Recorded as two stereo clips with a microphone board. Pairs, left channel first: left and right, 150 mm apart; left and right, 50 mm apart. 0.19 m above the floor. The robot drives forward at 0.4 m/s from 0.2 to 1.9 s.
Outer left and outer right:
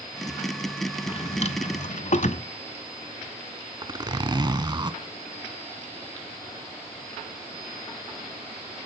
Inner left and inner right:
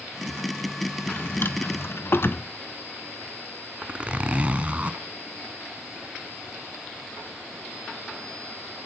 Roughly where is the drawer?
Left.